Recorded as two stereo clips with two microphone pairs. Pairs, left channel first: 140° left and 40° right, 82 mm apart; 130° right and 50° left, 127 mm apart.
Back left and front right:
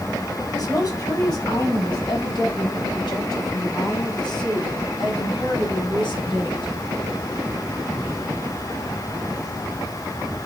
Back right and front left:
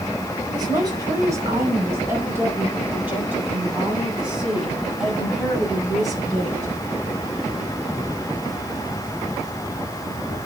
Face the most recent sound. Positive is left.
turn(degrees=140)